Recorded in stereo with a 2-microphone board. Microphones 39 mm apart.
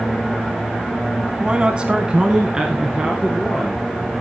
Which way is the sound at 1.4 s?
25° right (ahead or behind).